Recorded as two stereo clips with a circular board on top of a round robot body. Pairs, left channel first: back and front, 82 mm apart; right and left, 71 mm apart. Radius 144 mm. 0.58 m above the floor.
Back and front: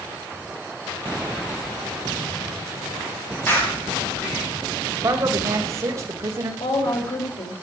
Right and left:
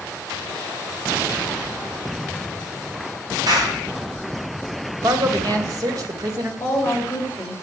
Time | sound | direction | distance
3.5 | a clap | 115° left | 5.5 m
5.0 | a man speaking | 55° left | 3 m
6.6 | a woman speaking | 155° right | 4 m